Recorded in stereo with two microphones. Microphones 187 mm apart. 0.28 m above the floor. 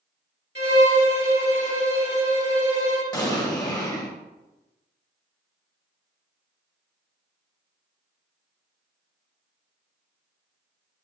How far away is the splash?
I don't hear a splash.